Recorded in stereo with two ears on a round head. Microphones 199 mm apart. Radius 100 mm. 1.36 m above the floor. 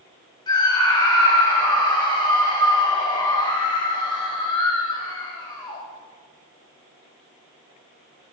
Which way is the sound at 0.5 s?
20° left (ahead or behind).